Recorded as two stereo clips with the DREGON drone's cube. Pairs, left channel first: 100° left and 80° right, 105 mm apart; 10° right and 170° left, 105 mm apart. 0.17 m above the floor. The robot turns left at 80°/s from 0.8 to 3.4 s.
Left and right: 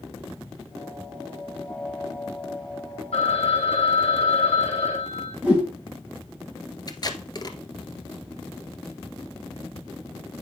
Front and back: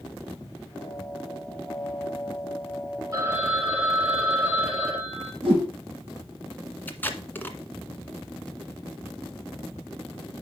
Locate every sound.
3.1 s a phone ringing: 115° left, 3.5 m; by 5.3 s 95° left, 3.5 m
5.4 s a whoosh: 160° right, 6 m
6.9 s tape being pulled: 60° left, 1.4 m